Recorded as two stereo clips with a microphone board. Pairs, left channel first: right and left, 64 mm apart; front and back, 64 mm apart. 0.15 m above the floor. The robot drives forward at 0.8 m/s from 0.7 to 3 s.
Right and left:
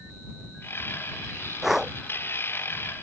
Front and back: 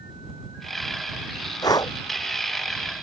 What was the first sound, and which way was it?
Breathing, 5° left.